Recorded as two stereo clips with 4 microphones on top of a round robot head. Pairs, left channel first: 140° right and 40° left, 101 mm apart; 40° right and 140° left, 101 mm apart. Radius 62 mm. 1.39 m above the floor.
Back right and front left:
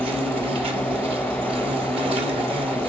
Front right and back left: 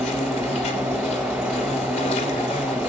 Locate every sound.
0.0 s an insect: 5° right, 2 m